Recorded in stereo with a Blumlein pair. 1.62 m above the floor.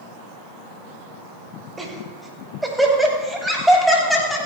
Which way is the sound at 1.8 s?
10° right.